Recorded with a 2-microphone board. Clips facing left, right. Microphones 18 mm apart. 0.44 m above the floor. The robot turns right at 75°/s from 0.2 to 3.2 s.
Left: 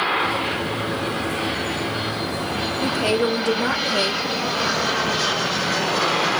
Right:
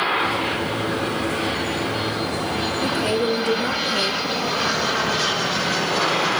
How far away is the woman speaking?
About 1.5 m.